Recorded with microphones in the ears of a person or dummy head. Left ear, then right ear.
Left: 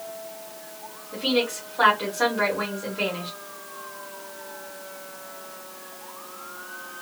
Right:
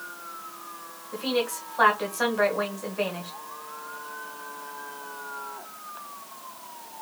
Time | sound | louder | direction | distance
1.1 | a woman speaking | left 3 dB | 40° right (ahead or behind) | 1.7 m